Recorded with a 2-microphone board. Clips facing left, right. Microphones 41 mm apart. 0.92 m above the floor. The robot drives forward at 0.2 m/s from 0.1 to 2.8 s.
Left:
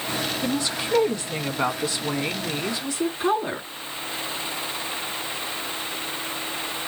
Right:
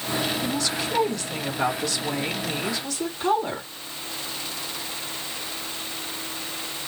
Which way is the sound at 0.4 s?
25° left (ahead or behind).